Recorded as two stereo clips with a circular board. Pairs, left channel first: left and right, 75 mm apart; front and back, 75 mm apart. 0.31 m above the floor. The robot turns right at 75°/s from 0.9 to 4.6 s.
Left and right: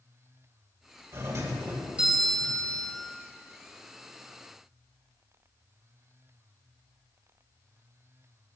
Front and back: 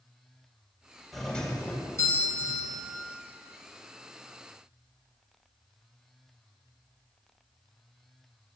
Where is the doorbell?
90° right, 1.8 m; by 3.0 s 50° left, 1.8 m.